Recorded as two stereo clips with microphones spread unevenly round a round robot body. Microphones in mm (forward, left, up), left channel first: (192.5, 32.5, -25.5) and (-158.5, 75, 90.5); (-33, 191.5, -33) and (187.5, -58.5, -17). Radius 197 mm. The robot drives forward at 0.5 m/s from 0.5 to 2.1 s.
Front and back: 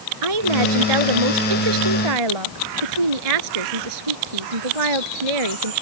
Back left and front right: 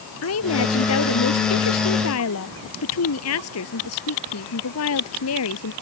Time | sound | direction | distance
0.2 | a woman speaking | 170° right | ?